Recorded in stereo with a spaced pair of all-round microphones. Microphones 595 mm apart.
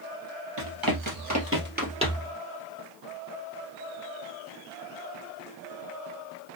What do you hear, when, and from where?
0.6 s running footsteps: 40° right (ahead or behind), 2.5 m; by 2.3 s centre (ahead or behind), 2 m